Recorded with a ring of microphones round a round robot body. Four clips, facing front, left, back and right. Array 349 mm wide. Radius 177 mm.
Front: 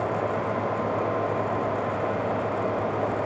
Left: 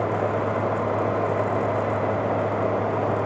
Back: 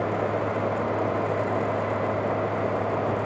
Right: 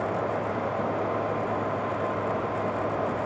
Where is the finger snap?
No finger snap in this recording.